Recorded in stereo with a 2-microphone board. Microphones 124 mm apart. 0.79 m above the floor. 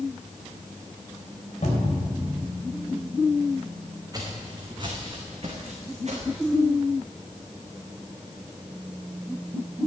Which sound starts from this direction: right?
Footsteps, at 4.1 s.